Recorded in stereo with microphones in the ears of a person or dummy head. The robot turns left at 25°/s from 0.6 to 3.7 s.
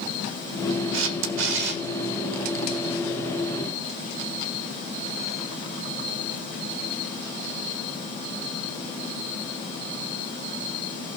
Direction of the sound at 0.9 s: 75° right (ahead or behind).